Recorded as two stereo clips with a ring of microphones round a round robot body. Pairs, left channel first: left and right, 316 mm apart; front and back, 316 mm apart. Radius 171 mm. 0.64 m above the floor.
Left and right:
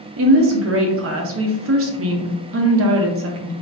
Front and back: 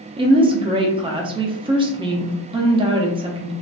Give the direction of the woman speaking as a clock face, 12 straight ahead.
4 o'clock.